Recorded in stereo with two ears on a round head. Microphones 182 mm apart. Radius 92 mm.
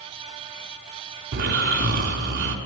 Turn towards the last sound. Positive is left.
turn(degrees=-45)  # may be behind; listen again after turning